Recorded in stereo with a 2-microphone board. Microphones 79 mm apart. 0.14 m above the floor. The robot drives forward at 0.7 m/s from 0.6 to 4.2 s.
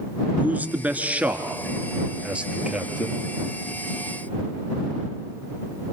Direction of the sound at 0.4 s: 20° right (ahead or behind).